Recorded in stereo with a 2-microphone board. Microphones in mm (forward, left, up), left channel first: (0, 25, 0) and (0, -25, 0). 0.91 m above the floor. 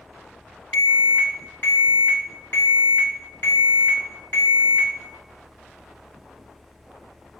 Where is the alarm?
45° left (ahead or behind), 1.9 m.